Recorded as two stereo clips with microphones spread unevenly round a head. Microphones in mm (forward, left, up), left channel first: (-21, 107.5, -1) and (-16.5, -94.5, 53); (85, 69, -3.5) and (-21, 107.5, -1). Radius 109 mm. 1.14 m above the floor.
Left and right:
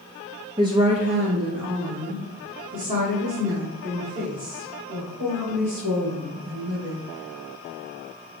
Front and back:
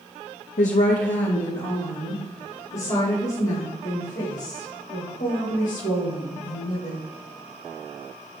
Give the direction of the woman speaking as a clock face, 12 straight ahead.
1 o'clock.